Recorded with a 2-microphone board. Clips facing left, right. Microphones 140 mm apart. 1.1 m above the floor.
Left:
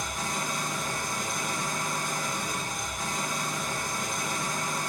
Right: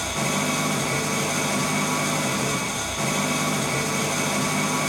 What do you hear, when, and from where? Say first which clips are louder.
0.0 s an engine running: right 8 dB; 75° right (ahead or behind), 1.1 m